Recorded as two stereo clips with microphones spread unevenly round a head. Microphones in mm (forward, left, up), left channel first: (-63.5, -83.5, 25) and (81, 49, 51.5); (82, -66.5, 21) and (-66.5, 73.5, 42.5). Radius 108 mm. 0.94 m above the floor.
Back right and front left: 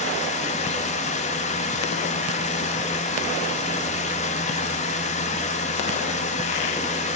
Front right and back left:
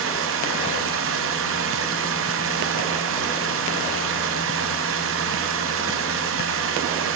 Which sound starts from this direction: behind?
Running water, at 0.0 s.